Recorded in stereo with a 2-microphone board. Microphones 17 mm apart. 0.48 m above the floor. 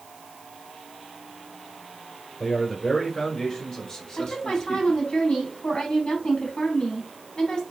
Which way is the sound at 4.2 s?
65° left (ahead or behind).